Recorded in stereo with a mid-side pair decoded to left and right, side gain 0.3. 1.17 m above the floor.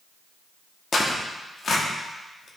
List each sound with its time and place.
0.9 s tearing paper: 60° left, 1.3 m